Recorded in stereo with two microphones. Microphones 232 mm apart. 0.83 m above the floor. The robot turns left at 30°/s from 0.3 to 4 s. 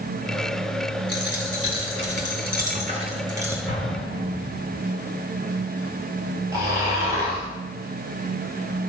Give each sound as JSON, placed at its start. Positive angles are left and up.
{"t": 1.1, "sound": "a dropped coin", "azimuth_deg": -100, "distance_m": 2.5}
{"t": 3.7, "sound": "an explosion", "side_deg": 40, "distance_m": 3.5}
{"t": 6.5, "sound": "snoring", "side_deg": -15, "distance_m": 5.5}